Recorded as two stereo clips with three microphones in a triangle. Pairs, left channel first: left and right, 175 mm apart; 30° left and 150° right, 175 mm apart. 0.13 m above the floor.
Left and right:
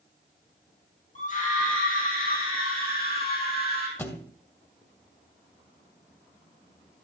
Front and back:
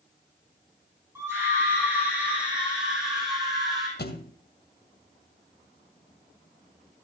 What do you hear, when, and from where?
1.1 s a scream: 135° left, 5.5 m; by 3.9 s 120° left, 6.5 m
4.0 s a thud: 10° left, 2 m